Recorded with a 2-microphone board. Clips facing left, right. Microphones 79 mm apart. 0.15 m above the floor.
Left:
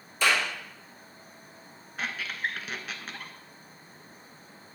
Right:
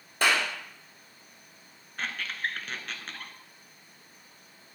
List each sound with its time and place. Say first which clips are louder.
0.2 s a clap: even; 60° right (ahead or behind), 2.5 m
2.0 s a squeak: left 1 dB; 5° left (ahead or behind), 0.7 m